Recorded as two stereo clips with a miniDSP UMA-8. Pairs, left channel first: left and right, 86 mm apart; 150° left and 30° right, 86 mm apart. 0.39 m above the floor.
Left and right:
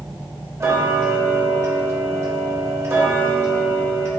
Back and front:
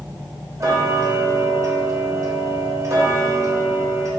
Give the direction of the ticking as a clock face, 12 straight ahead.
2 o'clock.